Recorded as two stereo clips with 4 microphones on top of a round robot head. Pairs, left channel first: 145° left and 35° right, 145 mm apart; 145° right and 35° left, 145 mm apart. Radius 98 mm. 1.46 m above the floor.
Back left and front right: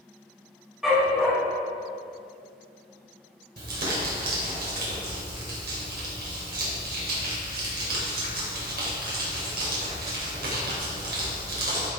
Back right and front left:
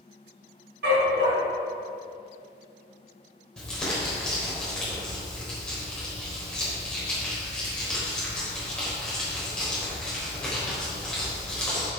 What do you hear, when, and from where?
0.8 s a dog barking: 50° left, 3.5 m
3.6 s crumpling: 60° right, 4 m